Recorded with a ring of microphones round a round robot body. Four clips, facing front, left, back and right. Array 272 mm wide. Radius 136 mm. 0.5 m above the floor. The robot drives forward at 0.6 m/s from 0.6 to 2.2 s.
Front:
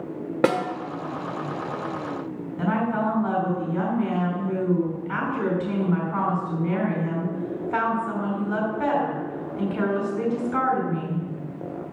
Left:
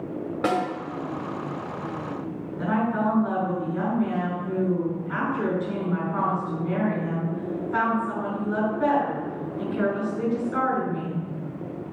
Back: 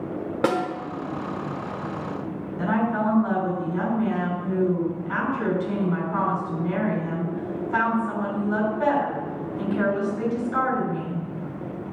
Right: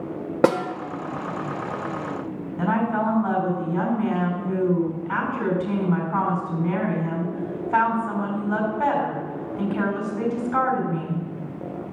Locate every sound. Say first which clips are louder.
0.4 s a snare drum: right 5 dB, front 1 dB; 70° right, 1.2 m; by 0.6 s 75° right, 1.2 m
2.6 s a woman speaking: right 2 dB, back 1 dB; 80° right, 5 m